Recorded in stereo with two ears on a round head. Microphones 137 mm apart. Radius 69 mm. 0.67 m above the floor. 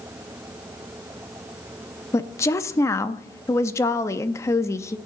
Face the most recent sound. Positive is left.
turn(degrees=20)  # may be behind; listen again after turning